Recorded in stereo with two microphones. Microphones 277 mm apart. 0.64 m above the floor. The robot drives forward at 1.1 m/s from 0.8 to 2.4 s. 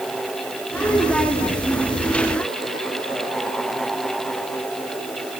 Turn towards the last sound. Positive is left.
No sound to turn to.